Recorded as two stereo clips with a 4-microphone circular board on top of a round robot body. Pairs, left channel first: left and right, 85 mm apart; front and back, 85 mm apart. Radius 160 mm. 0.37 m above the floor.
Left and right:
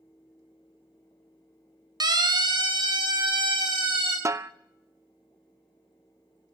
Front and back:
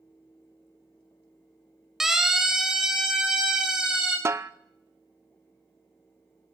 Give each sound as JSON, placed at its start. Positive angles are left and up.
{"t": 2.0, "sound": "a siren", "azimuth_deg": -95, "distance_m": 2.0}
{"t": 4.2, "sound": "a snare drum", "azimuth_deg": -130, "distance_m": 0.5}